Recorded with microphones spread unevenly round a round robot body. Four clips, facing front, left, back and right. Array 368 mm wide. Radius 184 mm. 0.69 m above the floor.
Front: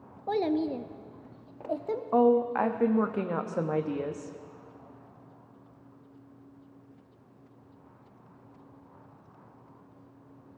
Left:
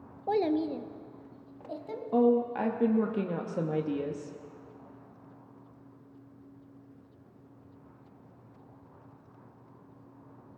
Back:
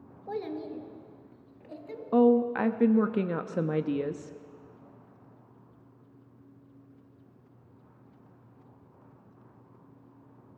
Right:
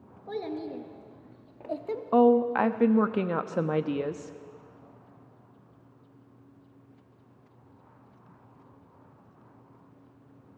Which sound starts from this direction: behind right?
A woman speaking, at 2.1 s.